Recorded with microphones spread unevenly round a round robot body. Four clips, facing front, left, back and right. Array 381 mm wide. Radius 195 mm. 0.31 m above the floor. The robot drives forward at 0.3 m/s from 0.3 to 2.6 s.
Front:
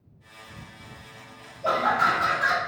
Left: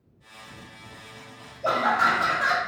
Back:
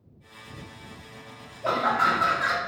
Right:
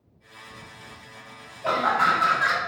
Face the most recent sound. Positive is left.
turn(degrees=130)